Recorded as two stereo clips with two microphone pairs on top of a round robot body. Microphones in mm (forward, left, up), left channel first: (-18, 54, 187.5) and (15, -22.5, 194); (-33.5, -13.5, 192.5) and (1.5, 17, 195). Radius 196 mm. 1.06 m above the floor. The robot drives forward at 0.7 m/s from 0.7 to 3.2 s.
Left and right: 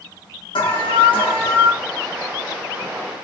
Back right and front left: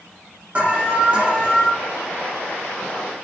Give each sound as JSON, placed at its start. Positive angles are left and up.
{"t": 0.6, "sound": "an alarm", "azimuth_deg": 100, "distance_m": 3.0}